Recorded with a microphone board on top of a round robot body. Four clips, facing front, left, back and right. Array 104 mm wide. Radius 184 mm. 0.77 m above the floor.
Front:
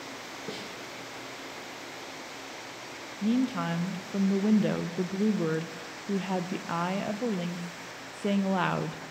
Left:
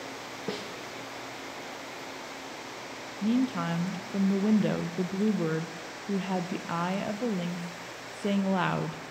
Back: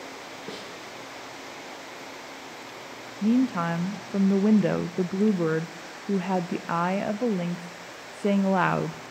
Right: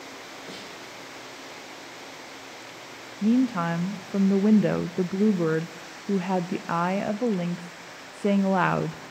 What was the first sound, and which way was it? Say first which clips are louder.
A snare drum: left 8 dB, even; 90° left.